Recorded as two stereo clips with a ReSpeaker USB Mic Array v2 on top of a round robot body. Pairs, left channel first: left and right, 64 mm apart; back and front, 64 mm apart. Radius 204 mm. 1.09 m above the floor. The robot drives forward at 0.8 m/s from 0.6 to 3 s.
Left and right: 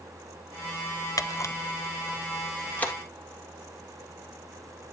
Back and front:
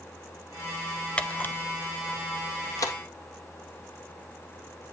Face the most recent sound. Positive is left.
turn(degrees=155)